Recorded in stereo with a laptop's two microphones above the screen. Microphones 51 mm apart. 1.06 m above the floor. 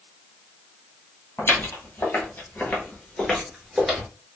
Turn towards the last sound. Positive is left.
turn(degrees=-15)  # may be behind; listen again after turning